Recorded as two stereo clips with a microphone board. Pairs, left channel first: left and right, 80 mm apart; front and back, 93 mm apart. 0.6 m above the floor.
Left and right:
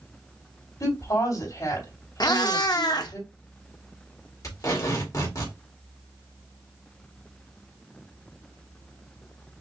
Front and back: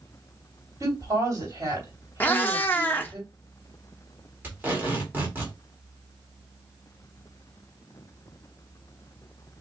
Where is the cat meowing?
65° left, 0.6 m.